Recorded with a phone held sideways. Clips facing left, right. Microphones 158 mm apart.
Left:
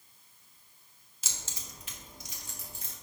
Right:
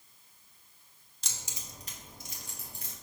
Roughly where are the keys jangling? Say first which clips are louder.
Even; centre.